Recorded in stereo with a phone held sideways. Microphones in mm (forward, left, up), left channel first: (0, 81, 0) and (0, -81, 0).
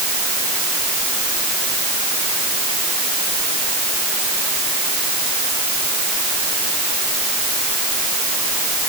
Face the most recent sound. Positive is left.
No sound to turn to.